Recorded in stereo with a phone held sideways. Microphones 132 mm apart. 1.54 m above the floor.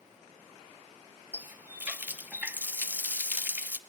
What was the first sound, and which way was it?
A running tap, 15° right (ahead or behind).